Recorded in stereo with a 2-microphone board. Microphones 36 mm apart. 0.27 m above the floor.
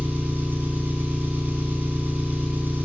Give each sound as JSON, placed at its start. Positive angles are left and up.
{"t": 0.0, "sound": "an engine running", "side_deg": -65, "distance_m": 1.1}